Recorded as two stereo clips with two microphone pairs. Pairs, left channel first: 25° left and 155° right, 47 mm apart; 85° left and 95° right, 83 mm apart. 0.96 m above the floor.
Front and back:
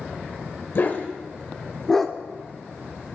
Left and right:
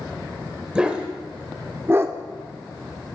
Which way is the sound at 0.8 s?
20° right.